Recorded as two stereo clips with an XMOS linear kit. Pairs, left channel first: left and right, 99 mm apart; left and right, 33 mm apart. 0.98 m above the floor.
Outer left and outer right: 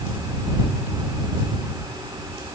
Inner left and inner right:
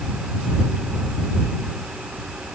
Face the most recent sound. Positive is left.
No sound to turn to.